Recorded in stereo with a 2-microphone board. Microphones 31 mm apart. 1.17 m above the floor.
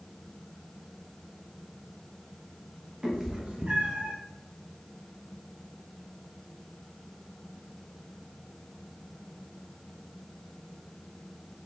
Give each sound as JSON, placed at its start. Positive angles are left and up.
{"t": 3.0, "sound": "a cat meowing", "side_deg": -20, "distance_m": 0.6}